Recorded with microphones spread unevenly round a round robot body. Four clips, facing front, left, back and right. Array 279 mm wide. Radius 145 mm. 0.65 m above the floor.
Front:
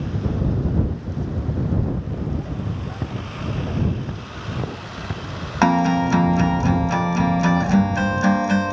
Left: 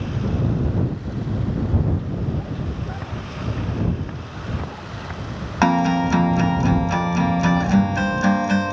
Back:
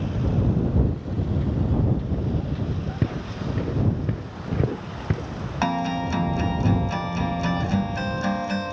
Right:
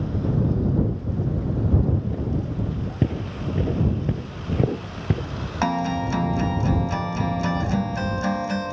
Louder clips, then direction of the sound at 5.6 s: Left 6 dB, front 8 dB; 50° left.